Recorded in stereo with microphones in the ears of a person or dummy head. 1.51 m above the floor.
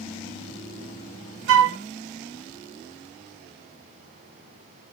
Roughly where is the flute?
Right.